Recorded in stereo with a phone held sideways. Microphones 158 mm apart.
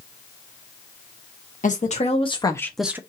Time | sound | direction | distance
1.6 | a woman speaking | 50° left (ahead or behind) | 1.3 m